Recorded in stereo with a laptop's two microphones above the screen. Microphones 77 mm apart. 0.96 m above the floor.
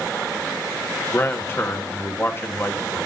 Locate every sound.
1.1 s a man speaking: 35° left (ahead or behind), 1.3 m